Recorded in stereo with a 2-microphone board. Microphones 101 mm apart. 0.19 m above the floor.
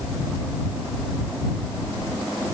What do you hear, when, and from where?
Only background noise.